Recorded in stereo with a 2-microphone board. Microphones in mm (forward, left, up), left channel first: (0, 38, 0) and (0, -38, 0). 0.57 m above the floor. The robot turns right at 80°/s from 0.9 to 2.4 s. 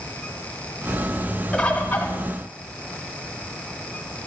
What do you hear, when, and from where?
1.5 s a bird: 10° left (ahead or behind), 1.3 m; by 2.1 s 25° left (ahead or behind), 1.3 m